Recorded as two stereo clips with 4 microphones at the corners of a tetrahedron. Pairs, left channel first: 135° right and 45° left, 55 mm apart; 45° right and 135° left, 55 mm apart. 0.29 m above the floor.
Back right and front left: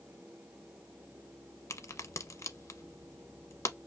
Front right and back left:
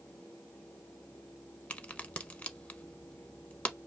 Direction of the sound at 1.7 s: 110° right.